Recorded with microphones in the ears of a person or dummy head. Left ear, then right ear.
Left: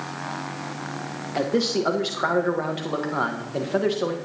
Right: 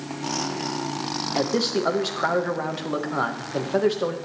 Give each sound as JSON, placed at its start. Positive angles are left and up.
{"t": 1.4, "sound": "a man speaking", "side_deg": 0, "distance_m": 1.2}